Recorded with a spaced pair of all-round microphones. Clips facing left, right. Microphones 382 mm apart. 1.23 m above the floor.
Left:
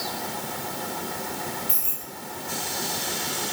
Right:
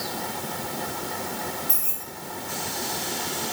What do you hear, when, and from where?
1.7 s keys jangling: 40° left (ahead or behind), 3 m